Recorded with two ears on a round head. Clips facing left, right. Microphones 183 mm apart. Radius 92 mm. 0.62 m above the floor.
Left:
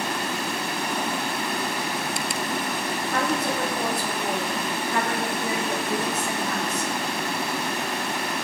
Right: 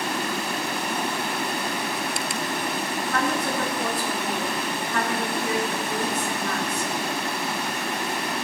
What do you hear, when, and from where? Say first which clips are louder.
3.1 s a woman speaking: even; 40° left (ahead or behind), 6 m